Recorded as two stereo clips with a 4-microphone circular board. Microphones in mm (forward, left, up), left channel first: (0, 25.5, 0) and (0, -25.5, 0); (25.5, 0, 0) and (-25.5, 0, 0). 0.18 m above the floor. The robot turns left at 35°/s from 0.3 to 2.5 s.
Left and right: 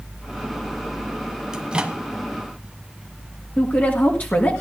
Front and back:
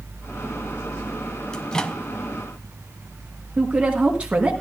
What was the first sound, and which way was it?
A microwave, 45° right.